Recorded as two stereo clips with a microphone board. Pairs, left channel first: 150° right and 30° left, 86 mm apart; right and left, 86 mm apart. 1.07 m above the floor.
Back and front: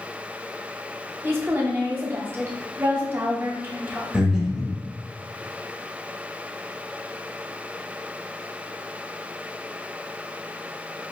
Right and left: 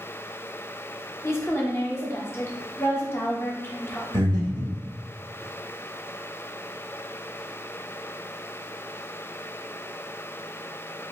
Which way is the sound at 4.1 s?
110° left.